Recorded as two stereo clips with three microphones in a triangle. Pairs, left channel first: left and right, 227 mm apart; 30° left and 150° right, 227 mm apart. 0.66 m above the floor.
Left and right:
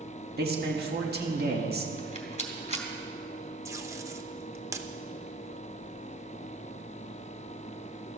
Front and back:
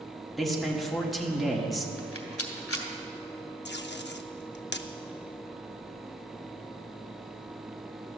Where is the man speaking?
60° right, 1.5 m.